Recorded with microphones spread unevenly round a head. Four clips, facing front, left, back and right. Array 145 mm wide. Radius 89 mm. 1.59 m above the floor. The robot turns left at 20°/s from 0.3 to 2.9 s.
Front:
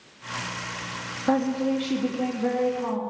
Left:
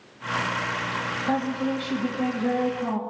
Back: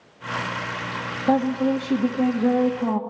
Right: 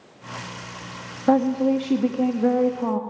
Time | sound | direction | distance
1.3 | a woman speaking | 105° right | 2.5 m